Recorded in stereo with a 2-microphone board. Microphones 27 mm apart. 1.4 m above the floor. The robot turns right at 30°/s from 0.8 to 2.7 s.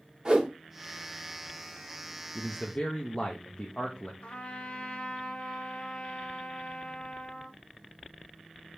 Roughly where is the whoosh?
Right.